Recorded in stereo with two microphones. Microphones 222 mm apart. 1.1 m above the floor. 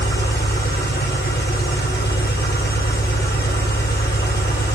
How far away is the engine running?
About 1.4 m.